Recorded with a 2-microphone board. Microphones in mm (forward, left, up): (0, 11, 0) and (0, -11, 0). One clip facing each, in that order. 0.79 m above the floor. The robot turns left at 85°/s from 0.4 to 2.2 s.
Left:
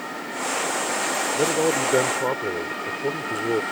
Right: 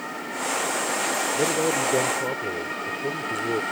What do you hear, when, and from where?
1.3 s a man speaking: 160° left; by 3.6 s 85° left